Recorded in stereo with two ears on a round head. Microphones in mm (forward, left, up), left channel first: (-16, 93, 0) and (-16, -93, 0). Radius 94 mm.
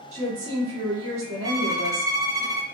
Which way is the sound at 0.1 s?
35° right (ahead or behind).